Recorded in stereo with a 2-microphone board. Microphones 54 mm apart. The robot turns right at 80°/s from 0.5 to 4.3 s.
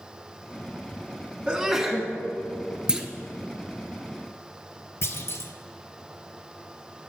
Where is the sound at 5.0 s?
60° left (ahead or behind), 0.7 m.